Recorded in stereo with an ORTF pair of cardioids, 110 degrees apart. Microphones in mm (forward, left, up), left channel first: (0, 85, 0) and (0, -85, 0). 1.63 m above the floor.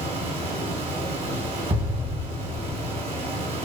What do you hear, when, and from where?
0.0 s a fan: 35° right, 0.9 m
1.7 s an explosion: 30° right, 1.3 m